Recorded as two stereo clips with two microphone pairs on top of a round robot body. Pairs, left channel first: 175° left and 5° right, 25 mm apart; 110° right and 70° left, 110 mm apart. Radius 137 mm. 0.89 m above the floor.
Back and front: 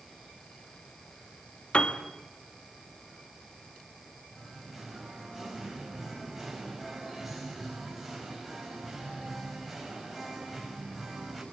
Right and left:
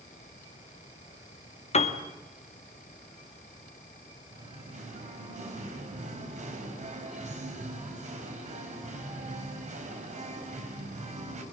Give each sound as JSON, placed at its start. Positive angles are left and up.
{"t": 1.7, "sound": "a piano", "azimuth_deg": -135, "distance_m": 2.0}
{"t": 4.3, "sound": "singing", "azimuth_deg": 85, "distance_m": 5.5}